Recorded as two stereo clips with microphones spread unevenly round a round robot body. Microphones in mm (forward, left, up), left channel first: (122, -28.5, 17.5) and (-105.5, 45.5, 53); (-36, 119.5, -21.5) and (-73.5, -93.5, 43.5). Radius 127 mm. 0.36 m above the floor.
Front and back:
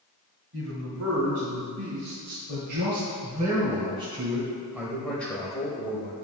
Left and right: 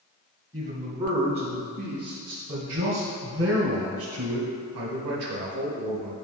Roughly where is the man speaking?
Behind right.